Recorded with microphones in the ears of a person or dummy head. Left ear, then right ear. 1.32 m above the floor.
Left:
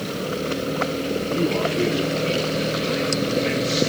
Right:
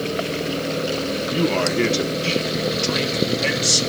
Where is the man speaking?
40° right (ahead or behind), 0.9 m; by 3.8 s 70° right (ahead or behind), 3 m.